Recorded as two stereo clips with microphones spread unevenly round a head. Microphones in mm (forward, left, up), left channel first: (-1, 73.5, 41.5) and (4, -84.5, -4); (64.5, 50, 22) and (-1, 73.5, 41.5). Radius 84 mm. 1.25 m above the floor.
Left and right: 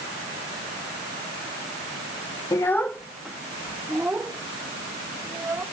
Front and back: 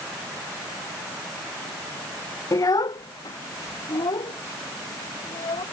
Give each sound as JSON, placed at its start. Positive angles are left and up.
{"t": 2.5, "sound": "a child speaking", "azimuth_deg": 30}